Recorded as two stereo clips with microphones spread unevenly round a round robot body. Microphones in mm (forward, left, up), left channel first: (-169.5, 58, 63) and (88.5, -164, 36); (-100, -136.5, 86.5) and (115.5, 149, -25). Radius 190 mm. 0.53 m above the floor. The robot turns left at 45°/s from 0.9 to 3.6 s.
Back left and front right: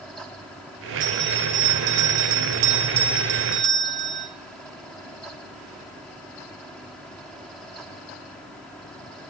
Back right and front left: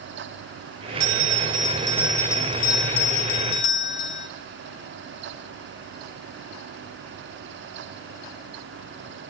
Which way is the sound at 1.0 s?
25° left.